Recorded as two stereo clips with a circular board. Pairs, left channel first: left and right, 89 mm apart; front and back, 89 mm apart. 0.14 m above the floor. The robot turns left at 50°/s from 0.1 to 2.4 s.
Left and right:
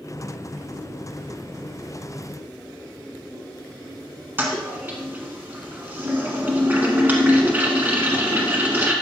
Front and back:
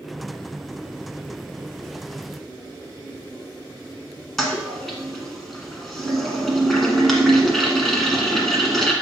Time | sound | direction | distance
4.4 | a toilet flushing | 85° right | 1.4 m